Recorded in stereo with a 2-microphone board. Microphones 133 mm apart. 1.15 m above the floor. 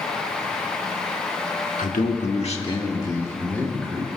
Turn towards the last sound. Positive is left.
turn(degrees=5)  # may be behind; listen again after turning